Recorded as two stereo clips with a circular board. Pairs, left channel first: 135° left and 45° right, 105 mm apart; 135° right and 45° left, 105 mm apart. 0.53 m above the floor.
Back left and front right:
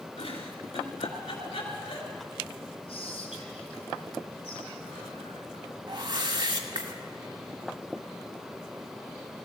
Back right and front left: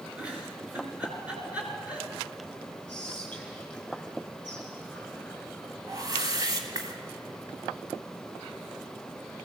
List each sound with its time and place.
0.2 s a giggle: 120° left, 3.5 m
2.9 s whispering: 145° left, 3.5 m
5.9 s a whoosh: 5° right, 1.8 m